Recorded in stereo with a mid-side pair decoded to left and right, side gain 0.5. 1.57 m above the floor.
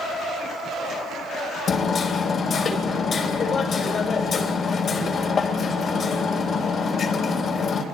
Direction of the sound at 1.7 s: 45° left.